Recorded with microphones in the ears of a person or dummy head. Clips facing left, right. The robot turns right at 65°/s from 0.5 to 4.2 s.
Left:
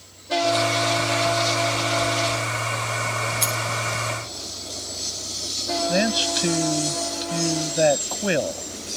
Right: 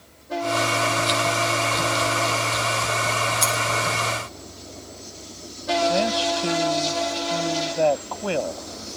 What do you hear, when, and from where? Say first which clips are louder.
3.4 s a dropped coin: right 3 dB; 5° left (ahead or behind); by 3.6 s 10° right (ahead or behind)
5.9 s a man speaking: right 1 dB; 25° left (ahead or behind)